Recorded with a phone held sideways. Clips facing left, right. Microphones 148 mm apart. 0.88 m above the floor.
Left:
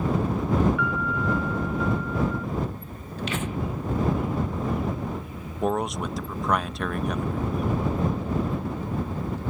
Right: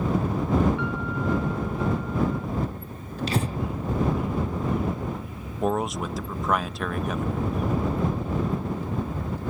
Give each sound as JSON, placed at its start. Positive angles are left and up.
{"t": 0.8, "sound": "a piano", "side_deg": -30}
{"t": 3.3, "sound": "breathing", "side_deg": -35}
{"t": 5.6, "sound": "a man speaking", "side_deg": 0}